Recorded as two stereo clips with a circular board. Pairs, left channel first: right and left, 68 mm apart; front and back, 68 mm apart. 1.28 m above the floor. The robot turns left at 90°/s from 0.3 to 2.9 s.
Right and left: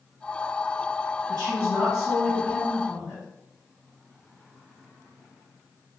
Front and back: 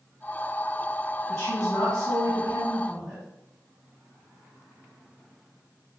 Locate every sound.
1.3 s a woman speaking: 70° left, 1.4 m; by 3.2 s 75° right, 1.4 m